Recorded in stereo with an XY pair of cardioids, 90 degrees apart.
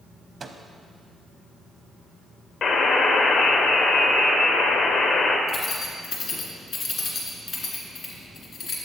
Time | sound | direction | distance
0.4 | a microwave | 45° right | 0.6 m
2.6 | a buzzer | 70° left | 0.9 m
5.5 | keys jangling | 65° left | 1.8 m